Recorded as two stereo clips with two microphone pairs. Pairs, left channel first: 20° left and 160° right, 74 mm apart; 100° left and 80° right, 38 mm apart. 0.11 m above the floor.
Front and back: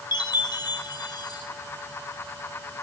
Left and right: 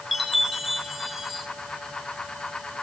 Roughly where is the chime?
Ahead.